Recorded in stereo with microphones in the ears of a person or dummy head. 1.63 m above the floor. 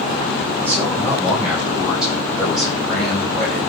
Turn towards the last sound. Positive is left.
turn(degrees=5)  # may be behind; listen again after turning